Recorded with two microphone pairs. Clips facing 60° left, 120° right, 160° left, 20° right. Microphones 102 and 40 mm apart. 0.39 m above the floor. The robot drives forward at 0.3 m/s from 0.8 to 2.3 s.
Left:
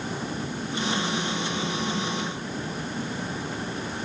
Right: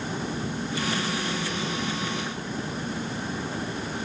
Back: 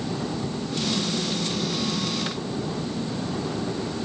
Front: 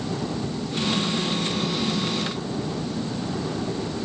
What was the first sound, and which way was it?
Only background noise.